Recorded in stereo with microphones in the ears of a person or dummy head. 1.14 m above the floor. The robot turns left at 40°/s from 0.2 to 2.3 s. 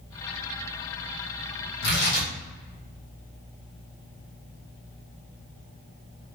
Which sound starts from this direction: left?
Tearing paper, at 1.8 s.